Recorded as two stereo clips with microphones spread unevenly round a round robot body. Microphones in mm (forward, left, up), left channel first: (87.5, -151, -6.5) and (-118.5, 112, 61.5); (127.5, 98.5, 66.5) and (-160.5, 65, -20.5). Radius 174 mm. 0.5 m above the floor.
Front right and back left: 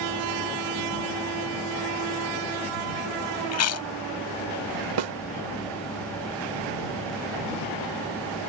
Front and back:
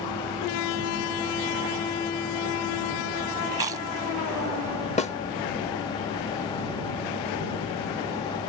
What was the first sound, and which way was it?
Chewing, 95° right.